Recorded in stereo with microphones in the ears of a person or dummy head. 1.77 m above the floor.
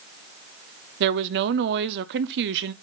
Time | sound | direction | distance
1.0 | a woman speaking | 60° right (ahead or behind) | 0.7 m